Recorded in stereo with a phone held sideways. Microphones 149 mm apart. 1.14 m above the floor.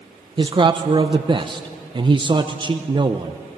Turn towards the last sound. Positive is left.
turn(degrees=-30)  # may be behind; listen again after turning